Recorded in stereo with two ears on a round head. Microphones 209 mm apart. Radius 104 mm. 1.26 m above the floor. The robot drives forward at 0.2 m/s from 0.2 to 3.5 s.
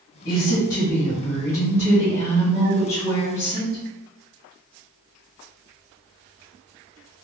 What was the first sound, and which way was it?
A woman speaking, 40° left (ahead or behind).